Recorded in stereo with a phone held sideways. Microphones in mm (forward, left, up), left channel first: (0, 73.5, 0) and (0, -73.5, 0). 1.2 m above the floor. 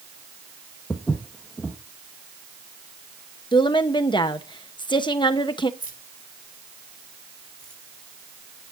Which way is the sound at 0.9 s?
5° left (ahead or behind).